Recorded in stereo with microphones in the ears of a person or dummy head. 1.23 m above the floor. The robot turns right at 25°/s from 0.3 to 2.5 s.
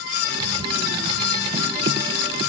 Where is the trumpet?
I don't hear a trumpet.